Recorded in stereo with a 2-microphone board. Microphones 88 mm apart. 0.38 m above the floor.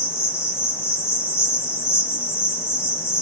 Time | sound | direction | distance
0.0 | an insect | 30° left (ahead or behind) | 1.0 m